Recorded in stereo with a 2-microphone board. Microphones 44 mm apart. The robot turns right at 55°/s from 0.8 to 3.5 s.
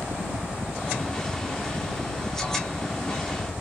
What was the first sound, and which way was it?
A helicopter, 50° right.